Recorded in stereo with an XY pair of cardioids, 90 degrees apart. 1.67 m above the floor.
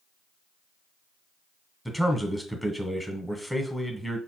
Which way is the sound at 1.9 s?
5° left.